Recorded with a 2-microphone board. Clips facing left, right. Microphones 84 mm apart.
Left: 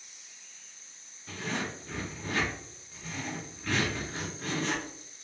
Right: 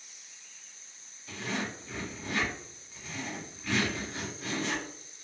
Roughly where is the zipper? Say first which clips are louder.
Even; left.